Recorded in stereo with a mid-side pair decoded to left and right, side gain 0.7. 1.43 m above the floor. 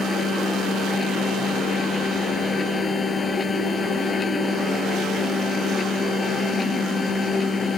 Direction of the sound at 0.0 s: 25° left.